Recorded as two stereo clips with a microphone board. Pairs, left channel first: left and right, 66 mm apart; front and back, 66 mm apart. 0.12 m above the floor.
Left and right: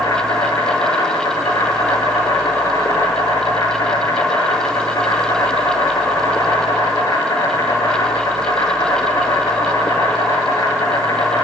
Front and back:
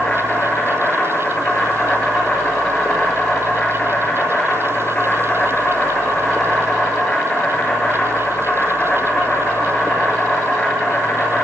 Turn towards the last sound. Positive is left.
turn(degrees=75)